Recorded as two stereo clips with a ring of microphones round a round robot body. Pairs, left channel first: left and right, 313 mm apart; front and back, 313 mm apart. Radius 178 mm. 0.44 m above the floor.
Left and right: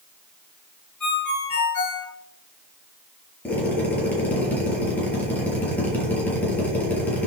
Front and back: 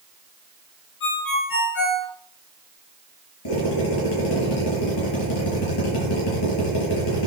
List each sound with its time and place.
1.0 s a ringtone: 55° left, 4.5 m
3.5 s a drill: 5° left, 7.5 m